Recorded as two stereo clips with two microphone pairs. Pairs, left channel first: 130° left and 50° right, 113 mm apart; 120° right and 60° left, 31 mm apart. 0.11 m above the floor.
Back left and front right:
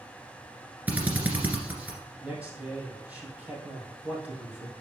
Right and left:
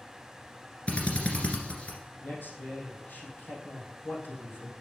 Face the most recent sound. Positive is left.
turn(degrees=-130)